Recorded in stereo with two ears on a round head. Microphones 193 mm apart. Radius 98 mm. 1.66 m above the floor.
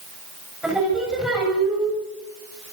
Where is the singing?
5° right (ahead or behind), 7 m.